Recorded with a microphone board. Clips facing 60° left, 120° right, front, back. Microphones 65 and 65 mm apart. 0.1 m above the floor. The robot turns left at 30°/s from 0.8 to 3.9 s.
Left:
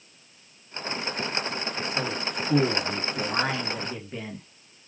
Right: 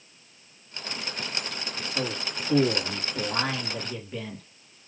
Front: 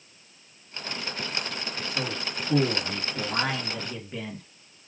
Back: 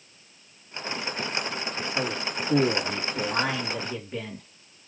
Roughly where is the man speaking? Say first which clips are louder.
Right 1 dB, back 3 dB; behind left.